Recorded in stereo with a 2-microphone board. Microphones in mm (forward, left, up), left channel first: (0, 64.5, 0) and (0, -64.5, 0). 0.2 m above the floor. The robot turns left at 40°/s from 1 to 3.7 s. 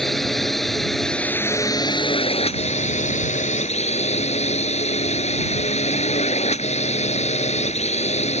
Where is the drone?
Straight behind; by 8.4 s 70° left.